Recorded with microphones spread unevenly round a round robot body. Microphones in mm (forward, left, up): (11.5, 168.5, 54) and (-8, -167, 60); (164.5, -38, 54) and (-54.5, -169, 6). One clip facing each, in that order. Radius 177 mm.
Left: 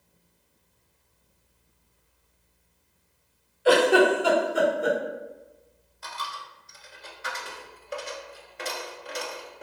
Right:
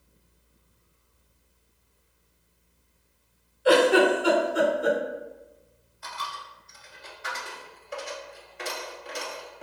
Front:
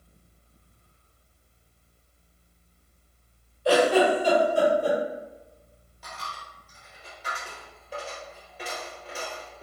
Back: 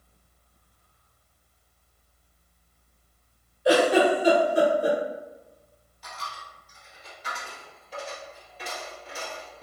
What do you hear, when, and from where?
3.6 s a giggle: 135° left, 1.4 m
6.0 s a dropped coin: 90° left, 1.0 m